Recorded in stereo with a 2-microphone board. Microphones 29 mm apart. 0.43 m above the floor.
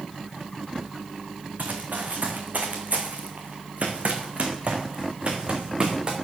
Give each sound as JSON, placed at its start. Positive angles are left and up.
{"t": 1.6, "sound": "running footsteps", "side_deg": -80, "distance_m": 2.5}